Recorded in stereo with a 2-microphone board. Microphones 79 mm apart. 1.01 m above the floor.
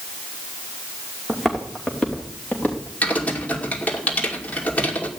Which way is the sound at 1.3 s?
Centre (ahead or behind).